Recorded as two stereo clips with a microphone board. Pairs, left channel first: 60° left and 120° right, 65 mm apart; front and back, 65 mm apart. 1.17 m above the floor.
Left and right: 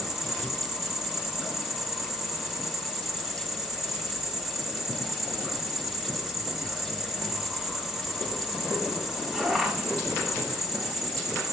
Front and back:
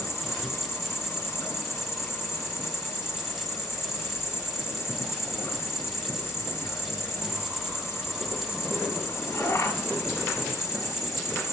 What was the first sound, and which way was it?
An insect, 30° right.